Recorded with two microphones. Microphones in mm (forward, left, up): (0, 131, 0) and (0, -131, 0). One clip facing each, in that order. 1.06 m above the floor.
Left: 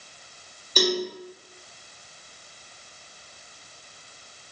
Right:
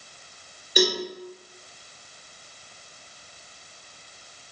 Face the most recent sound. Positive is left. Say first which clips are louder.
# right 1 dB
turn(degrees=-10)  # may be behind; listen again after turning